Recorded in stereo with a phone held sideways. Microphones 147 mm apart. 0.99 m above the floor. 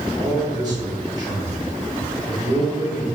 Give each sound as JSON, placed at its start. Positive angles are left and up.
{"t": 0.2, "sound": "a man speaking", "side_deg": -30, "distance_m": 4.0}